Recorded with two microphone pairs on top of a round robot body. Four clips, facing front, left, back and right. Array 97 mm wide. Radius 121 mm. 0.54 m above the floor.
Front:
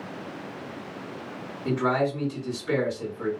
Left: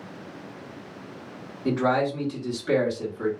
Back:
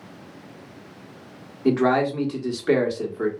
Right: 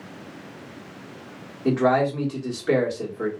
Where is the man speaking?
170° right, 1.5 m.